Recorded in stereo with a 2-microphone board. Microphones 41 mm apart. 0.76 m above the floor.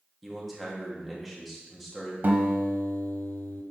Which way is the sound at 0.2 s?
Centre (ahead or behind).